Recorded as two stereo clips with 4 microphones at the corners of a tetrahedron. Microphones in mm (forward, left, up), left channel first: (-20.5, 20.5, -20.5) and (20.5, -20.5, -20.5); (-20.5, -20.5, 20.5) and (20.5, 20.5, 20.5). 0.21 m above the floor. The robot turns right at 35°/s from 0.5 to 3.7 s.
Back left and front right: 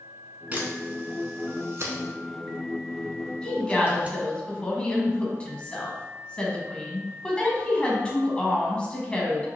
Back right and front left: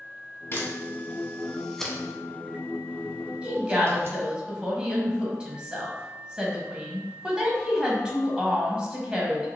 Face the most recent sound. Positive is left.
turn(degrees=95)